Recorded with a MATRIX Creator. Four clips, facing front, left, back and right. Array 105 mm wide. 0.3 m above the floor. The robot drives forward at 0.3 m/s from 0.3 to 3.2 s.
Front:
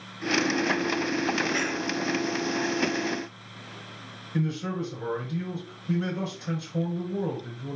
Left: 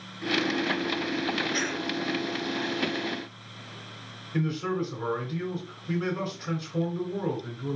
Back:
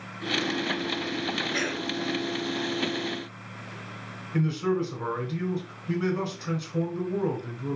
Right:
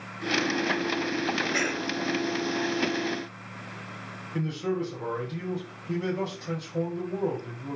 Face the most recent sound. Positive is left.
turn(degrees=140)